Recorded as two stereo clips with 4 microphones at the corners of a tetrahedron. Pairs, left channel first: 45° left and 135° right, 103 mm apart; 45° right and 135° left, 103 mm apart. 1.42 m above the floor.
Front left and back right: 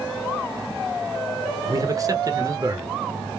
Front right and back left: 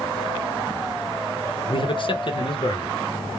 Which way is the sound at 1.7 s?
80° right.